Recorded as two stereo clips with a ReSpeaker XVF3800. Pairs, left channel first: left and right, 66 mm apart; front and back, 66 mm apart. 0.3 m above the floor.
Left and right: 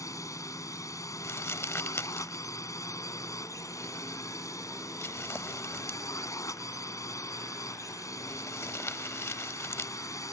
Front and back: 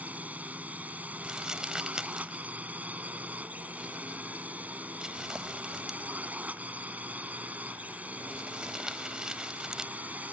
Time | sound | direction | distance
0.0 | a drone | 115° left | ?
1.2 | crumpling | 105° left | ?